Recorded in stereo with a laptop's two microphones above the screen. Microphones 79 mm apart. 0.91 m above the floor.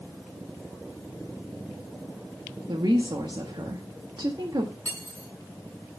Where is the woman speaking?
70° right (ahead or behind), 1.5 m.